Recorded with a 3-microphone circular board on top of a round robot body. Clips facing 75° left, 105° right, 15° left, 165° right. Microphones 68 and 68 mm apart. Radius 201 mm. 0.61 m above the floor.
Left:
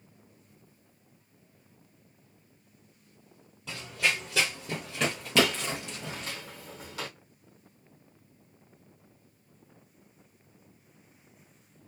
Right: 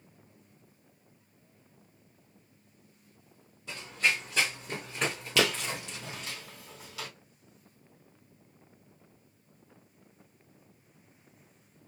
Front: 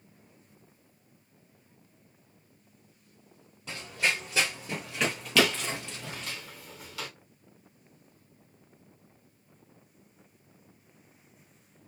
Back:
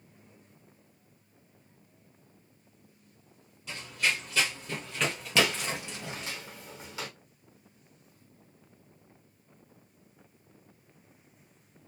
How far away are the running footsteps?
About 1.4 m.